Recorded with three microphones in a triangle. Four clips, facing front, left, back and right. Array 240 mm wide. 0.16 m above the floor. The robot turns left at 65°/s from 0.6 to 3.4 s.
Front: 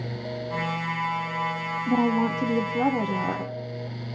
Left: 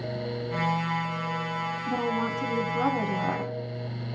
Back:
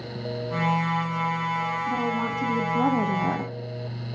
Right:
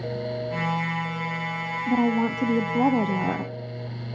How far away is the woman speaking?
About 1.2 m.